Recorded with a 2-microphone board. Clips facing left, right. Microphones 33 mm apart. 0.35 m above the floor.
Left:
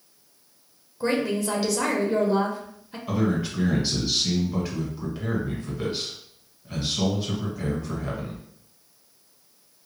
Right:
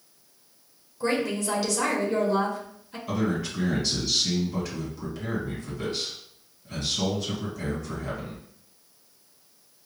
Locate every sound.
1.0 s a woman speaking: 15° left (ahead or behind), 0.9 m
3.1 s a man speaking: 20° left (ahead or behind), 1.7 m